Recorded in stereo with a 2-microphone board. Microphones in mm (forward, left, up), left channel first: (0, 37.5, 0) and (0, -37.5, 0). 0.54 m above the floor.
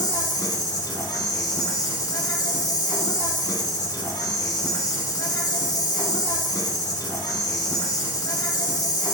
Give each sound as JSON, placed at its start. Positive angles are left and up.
{"t": 0.0, "sound": "an insect", "side_deg": 60, "distance_m": 0.8}